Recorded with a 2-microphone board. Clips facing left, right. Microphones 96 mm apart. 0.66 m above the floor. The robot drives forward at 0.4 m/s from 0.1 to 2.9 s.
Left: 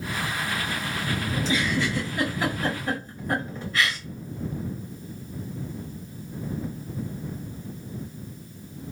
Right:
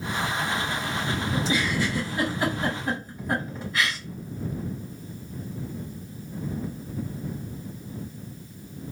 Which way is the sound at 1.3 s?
5° right (ahead or behind).